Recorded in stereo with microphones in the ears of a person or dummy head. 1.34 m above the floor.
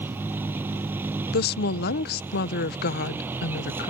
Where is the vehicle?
10° right (ahead or behind).